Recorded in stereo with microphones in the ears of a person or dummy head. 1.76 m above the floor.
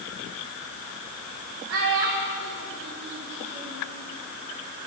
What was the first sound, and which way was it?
A child speaking, 70° right (ahead or behind).